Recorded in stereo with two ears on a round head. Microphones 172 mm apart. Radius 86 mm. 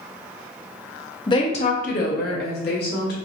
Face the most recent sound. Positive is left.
turn(degrees=55)  # may be behind; listen again after turning